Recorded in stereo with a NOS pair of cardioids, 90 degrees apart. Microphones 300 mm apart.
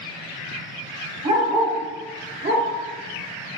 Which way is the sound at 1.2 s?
25° right.